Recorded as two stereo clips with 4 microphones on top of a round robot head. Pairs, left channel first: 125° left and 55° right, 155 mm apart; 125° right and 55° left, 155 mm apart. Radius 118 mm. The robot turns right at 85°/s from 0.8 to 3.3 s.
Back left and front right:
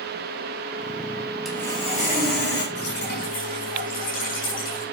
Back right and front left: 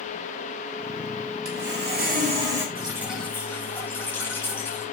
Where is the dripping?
115° left, 6 m; by 4.8 s 160° left, 6 m.